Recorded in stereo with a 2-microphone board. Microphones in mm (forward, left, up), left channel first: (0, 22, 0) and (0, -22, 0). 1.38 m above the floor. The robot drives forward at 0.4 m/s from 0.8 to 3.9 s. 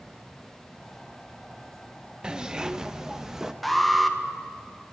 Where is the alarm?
Centre (ahead or behind), 1.7 m.